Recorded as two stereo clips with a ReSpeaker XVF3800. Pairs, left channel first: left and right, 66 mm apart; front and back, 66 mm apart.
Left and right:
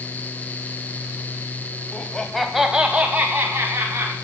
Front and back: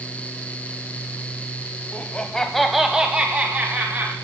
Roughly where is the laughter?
Ahead left.